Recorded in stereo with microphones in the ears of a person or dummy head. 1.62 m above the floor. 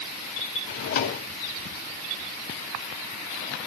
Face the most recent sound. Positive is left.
turn(degrees=45)  # may be behind; listen again after turning